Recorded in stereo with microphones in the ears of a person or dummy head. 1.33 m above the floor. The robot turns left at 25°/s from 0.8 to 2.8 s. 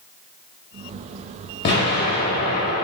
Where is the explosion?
25° left (ahead or behind), 0.7 m; by 2.9 s 30° left (ahead or behind), 0.7 m.